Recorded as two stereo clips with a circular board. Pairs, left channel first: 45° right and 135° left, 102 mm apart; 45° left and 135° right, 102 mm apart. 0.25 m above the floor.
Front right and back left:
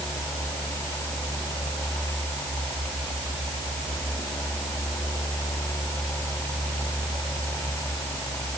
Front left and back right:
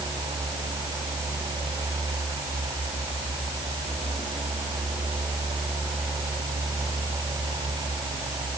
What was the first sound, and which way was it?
Only background noise.